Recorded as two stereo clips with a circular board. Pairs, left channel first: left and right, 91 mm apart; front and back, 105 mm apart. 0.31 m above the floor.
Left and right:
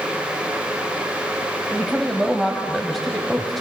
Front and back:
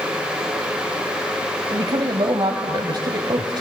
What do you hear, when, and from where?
1.7 s a woman speaking: straight behind, 1.4 m